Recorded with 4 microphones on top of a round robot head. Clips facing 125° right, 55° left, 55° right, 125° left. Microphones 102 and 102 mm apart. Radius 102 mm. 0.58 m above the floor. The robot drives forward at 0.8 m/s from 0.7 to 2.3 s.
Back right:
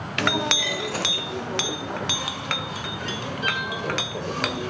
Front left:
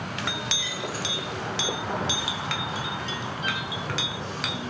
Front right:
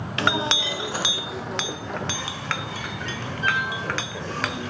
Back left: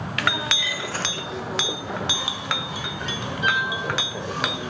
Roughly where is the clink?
Behind right.